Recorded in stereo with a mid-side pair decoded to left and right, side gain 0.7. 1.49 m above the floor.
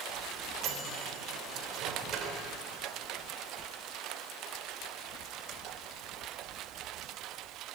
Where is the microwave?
45° right, 4 m.